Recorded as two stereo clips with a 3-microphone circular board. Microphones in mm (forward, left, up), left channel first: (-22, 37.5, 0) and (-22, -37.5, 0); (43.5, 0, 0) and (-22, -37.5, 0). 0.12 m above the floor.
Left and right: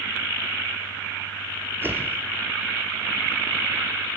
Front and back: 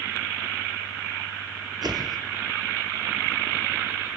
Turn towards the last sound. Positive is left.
turn(degrees=-150)